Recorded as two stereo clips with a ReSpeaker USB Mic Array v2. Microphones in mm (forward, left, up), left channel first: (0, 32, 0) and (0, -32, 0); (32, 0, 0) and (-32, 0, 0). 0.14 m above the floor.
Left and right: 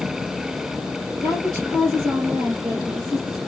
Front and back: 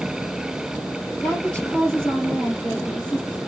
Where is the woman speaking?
65° right, 3 m.